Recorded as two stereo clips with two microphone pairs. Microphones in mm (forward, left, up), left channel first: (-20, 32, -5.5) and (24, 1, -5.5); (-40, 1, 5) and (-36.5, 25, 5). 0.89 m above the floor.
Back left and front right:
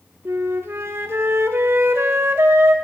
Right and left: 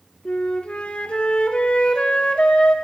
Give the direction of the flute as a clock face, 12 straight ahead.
2 o'clock.